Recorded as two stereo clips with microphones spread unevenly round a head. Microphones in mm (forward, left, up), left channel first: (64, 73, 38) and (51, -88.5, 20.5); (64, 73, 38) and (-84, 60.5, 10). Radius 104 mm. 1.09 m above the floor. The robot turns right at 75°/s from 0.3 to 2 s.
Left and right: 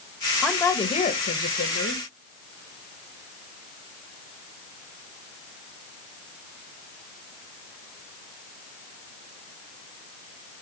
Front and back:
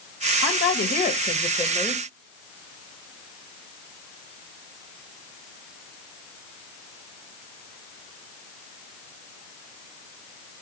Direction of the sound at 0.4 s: 10° right.